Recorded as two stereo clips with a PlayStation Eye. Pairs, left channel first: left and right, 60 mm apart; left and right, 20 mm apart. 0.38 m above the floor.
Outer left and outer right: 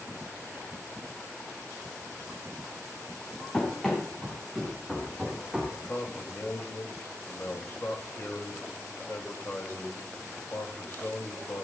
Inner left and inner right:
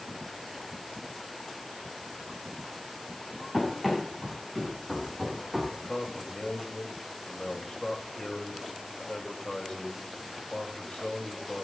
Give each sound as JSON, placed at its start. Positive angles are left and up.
{"t": 3.5, "sound": "running footsteps", "side_deg": 10, "distance_m": 7.0}
{"t": 5.7, "sound": "a man speaking", "side_deg": 40, "distance_m": 2.0}